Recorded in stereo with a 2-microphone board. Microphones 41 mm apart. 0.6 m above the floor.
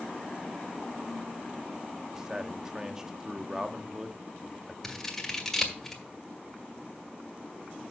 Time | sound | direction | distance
2.1 | a man speaking | 15° right (ahead or behind) | 0.9 m
4.8 | scissors | 10° left (ahead or behind) | 1.9 m